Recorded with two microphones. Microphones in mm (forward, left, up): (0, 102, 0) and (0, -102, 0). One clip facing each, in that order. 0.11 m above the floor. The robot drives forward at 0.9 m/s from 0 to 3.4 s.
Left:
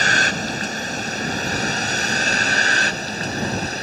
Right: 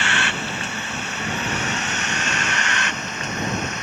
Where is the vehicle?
40° left (ahead or behind); by 3.8 s 35° left (ahead or behind).